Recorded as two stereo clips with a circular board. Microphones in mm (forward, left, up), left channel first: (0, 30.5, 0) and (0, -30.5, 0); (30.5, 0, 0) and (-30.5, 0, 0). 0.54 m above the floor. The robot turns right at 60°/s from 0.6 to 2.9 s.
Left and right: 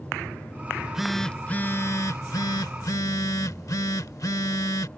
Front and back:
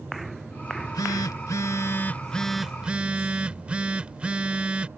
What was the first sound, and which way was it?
A phone buzzing, 25° right.